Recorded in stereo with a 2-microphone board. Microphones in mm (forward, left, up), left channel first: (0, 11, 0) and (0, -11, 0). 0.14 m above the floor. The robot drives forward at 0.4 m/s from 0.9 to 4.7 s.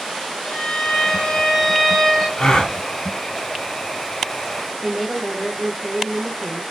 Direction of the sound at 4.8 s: 15° left (ahead or behind).